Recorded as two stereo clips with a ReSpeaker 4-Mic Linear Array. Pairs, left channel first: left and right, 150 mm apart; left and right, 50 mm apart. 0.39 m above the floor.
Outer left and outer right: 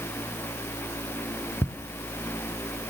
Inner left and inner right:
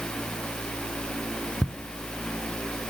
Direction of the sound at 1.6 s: 15° left (ahead or behind).